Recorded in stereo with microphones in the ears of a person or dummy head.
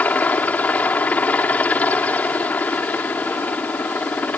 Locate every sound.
0.0 s a helicopter: 10° left (ahead or behind)